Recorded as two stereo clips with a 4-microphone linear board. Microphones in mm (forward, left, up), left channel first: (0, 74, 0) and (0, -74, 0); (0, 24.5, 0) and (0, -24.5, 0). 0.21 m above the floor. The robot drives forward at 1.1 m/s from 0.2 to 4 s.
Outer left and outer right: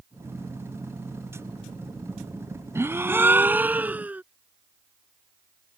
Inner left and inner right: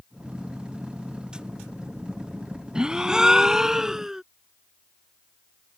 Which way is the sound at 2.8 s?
20° right (ahead or behind).